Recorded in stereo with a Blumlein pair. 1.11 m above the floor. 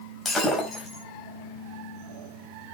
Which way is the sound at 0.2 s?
20° left.